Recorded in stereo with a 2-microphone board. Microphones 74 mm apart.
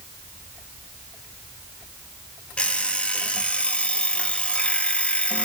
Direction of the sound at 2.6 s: 15° left (ahead or behind).